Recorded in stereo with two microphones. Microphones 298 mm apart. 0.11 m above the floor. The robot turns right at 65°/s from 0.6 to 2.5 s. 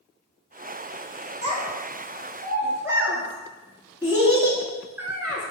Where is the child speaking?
25° right (ahead or behind), 0.7 m; by 5.5 s 10° right (ahead or behind), 0.7 m.